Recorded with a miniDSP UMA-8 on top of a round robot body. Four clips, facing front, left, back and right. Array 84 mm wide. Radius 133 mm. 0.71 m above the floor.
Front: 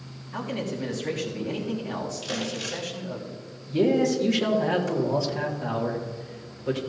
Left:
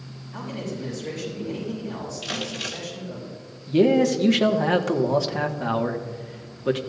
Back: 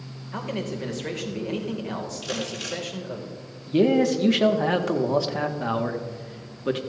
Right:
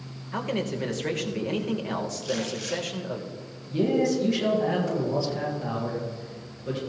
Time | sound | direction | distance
0.3 | a man speaking | 120° right | 2.5 m
2.2 | crumpling | 105° left | 5.5 m
3.7 | a man speaking | 135° left | 1.8 m